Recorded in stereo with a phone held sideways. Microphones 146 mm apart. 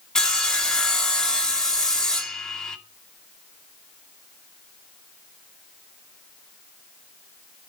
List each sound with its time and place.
0.1 s sawing: 5° left (ahead or behind), 2.0 m